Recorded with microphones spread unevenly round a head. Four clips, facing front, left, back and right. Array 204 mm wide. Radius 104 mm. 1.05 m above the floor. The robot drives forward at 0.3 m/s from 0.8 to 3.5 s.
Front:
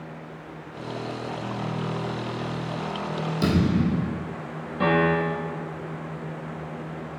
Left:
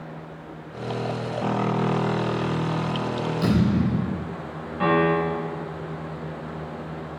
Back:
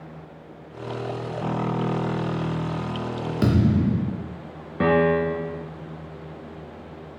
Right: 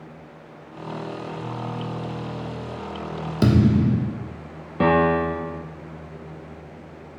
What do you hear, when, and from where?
3.4 s a thud: 105° right, 1.2 m; by 4.3 s 110° right, 1.2 m
4.8 s a piano: 115° right, 1.0 m